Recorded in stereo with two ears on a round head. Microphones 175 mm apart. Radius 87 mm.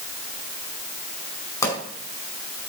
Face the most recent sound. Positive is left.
turn(degrees=15)  # may be behind; listen again after turning